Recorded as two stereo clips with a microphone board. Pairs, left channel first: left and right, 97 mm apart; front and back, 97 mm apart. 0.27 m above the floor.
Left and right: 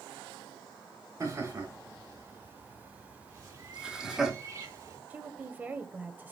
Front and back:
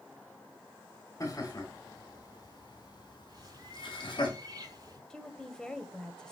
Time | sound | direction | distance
1.2 | laughter | 45° right | 3 m
3.3 | a bird | 140° right | 3.5 m
5.1 | a woman speaking | 65° right | 1.0 m